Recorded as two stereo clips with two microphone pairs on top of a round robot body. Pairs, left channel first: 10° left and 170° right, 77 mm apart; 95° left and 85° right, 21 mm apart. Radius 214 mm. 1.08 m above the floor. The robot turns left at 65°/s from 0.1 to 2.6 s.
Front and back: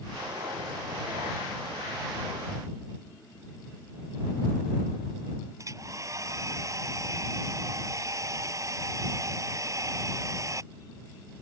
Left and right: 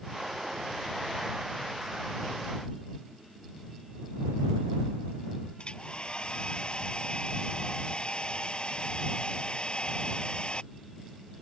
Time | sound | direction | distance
5.6 | a hair dryer | 145° left | ?